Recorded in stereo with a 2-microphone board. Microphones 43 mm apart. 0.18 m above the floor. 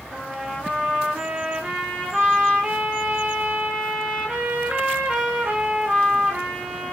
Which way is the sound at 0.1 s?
20° right (ahead or behind).